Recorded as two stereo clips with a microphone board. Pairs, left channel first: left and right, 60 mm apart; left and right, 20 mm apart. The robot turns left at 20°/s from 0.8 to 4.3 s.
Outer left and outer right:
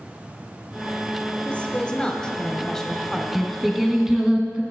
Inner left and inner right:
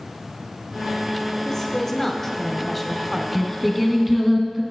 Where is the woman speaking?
45° left, 0.8 m; by 3.2 s 5° left, 0.8 m.